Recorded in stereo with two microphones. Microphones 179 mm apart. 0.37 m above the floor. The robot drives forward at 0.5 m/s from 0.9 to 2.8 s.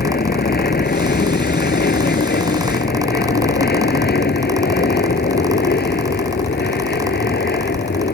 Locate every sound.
0.0 s an aircraft: 70° left (ahead or behind); by 8.1 s 80° left